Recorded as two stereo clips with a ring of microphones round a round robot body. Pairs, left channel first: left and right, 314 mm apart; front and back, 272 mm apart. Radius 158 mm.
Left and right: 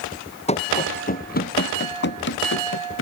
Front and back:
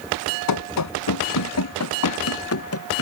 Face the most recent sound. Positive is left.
turn(degrees=35)